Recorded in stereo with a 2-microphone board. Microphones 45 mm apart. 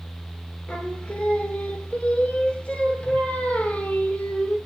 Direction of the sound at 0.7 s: 25° left (ahead or behind).